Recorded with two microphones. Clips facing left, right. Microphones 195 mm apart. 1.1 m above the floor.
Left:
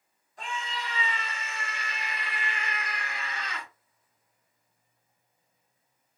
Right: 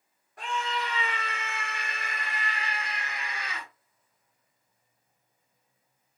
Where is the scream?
65° right (ahead or behind), 1.5 m; by 3.7 s 5° right (ahead or behind), 1.0 m.